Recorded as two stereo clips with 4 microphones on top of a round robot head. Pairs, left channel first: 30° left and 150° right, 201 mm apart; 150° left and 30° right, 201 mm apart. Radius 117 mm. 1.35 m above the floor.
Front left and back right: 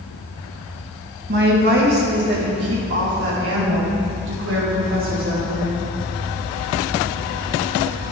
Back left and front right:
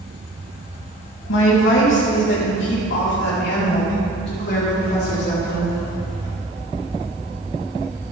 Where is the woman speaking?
170° left, 3 m; by 5.8 s 170° right, 6 m.